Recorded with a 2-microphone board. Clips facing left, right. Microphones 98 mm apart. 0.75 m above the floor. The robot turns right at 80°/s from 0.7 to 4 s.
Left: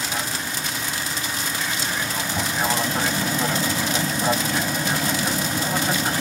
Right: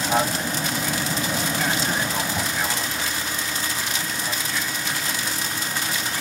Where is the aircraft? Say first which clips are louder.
Right 6 dB; 135° right; by 6.2 s 130° left.